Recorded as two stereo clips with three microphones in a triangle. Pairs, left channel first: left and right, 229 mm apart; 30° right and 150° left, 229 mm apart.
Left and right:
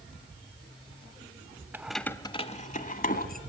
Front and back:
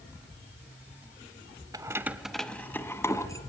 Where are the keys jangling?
160° right, 0.8 m; by 3.4 s 45° left, 1.7 m.